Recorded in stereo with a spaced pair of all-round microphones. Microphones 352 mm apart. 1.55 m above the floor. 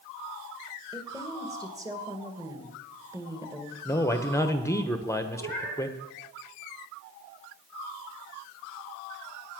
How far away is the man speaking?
About 1.2 m.